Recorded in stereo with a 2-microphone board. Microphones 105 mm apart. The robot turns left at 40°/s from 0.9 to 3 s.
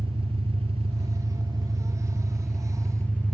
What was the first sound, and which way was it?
An engine running, 110° right.